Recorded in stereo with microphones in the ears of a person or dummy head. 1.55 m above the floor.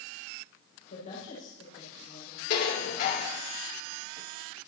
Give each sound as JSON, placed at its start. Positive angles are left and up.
{"t": 0.9, "sound": "a woman speaking", "side_deg": 50, "distance_m": 6.5}
{"t": 2.5, "sound": "dishes clattering", "side_deg": 55, "distance_m": 3.5}